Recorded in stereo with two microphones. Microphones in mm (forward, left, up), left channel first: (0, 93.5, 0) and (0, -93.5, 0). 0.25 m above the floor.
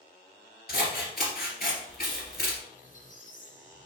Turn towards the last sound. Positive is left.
turn(degrees=45)  # may be behind; listen again after turning